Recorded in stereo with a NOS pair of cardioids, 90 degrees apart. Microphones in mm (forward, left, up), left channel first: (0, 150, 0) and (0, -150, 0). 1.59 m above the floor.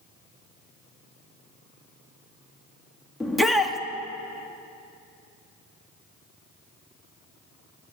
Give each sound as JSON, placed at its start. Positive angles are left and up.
{"t": 3.2, "sound": "a shout", "azimuth_deg": 0, "distance_m": 2.5}